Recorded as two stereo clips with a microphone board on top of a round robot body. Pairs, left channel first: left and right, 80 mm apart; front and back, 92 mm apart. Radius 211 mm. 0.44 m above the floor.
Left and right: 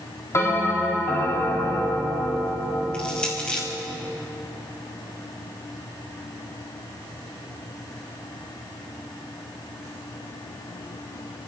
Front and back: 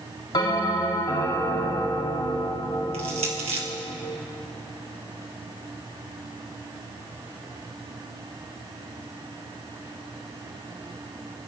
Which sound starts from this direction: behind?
Crushing, at 2.9 s.